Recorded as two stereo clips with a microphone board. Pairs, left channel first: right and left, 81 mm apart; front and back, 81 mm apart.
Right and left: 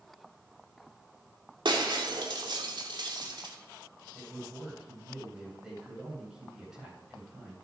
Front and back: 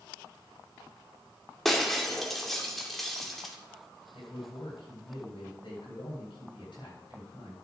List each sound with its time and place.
1.6 s breaking glass: 85° left, 2 m
4.1 s a man speaking: 10° left, 8 m